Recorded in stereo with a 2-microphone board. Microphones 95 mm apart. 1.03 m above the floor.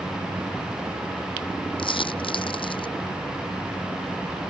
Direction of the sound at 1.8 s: 65° left (ahead or behind).